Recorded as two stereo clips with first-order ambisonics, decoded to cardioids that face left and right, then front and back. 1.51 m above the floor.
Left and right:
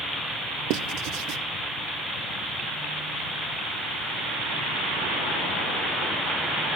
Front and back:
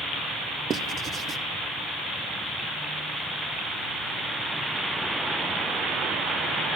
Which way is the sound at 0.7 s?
115° right.